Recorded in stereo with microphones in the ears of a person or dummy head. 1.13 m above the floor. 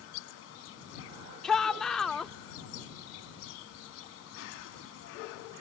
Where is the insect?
80° left.